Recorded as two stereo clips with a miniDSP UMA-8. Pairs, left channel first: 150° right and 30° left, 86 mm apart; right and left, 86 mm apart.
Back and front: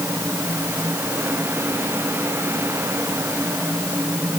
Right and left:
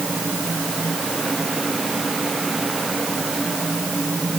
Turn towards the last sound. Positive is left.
No sound to turn to.